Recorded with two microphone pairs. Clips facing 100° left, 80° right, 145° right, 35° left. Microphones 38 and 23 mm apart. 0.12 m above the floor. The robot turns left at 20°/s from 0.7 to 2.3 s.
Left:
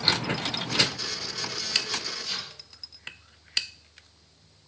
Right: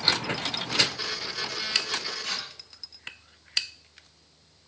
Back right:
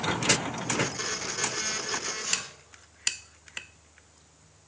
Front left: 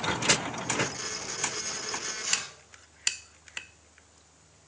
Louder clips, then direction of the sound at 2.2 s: Right 2 dB, front left 4 dB; 40° right.